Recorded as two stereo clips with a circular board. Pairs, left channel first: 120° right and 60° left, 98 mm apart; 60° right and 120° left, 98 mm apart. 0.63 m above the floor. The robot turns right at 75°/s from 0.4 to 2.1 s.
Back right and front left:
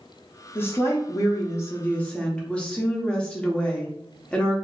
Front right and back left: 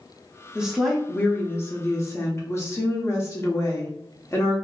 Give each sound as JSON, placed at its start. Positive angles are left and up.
{"t": 0.6, "sound": "a woman speaking", "azimuth_deg": -165, "distance_m": 0.6}